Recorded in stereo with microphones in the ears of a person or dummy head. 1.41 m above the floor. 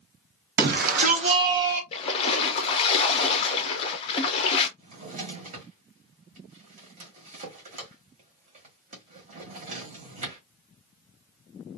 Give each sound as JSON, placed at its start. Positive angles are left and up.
{"t": 0.6, "sound": "a shout", "side_deg": -60, "distance_m": 1.3}
{"t": 1.9, "sound": "a splash", "side_deg": 35, "distance_m": 0.8}
{"t": 4.8, "sound": "a drawer", "side_deg": -40, "distance_m": 1.1}